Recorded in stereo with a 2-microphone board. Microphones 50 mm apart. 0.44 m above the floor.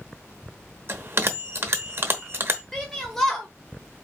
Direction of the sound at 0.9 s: 45° right (ahead or behind).